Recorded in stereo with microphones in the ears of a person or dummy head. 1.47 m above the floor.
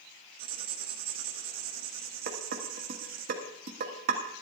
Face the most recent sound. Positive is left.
turn(degrees=-55)  # may be behind; listen again after turning